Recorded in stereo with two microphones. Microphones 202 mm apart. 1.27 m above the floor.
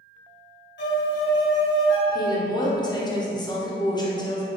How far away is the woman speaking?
About 0.5 m.